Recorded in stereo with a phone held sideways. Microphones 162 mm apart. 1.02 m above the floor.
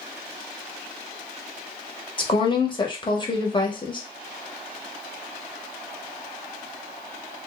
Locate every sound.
2.2 s a woman speaking: 30° left (ahead or behind), 0.8 m